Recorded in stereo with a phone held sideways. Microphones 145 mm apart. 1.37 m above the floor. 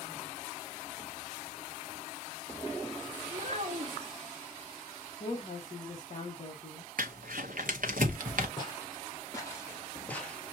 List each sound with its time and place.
3.3 s a child speaking: 50° right (ahead or behind), 1.4 m
5.2 s a woman speaking: 50° left (ahead or behind), 1.3 m
7.0 s crumpling: 70° right (ahead or behind), 0.9 m
8.6 s footsteps: 30° left (ahead or behind), 2.5 m; by 10.4 s centre (ahead or behind), 1.4 m